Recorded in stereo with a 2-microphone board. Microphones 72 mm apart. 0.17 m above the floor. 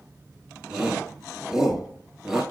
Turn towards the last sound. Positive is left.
turn(degrees=-5)  # may be behind; listen again after turning